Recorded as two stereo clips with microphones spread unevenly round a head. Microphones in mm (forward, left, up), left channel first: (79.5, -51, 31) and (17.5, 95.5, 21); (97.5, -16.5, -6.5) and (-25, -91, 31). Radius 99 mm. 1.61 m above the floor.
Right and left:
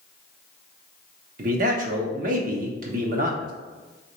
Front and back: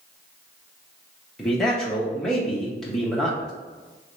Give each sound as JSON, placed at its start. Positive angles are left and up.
{"t": 1.4, "sound": "a man speaking", "azimuth_deg": 130, "distance_m": 0.7}